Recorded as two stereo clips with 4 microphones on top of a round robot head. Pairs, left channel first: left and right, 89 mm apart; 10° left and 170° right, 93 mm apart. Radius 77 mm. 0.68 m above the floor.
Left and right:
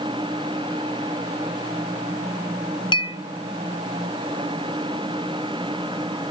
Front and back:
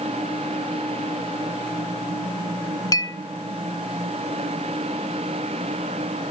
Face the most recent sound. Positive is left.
turn(degrees=60)